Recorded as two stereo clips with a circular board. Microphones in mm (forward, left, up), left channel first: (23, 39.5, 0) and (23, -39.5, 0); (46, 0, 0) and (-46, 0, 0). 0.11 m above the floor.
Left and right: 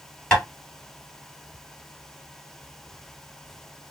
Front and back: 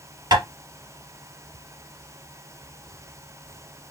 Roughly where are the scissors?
I don't hear scissors.